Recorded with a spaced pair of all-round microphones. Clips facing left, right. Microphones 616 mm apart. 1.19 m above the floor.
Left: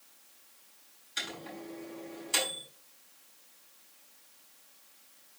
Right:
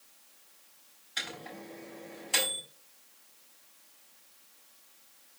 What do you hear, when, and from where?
1.2 s a microwave: 75° right (ahead or behind), 5.5 m